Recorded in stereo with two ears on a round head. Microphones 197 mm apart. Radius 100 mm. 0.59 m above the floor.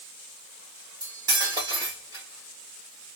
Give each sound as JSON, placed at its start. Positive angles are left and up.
{"t": 1.0, "sound": "cutlery clinking", "side_deg": -20, "distance_m": 1.3}